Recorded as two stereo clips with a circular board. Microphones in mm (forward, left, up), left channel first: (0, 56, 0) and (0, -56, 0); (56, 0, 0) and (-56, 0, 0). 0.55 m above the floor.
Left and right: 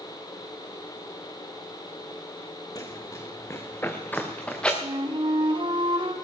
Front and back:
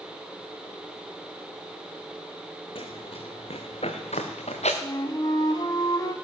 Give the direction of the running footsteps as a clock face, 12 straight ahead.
11 o'clock.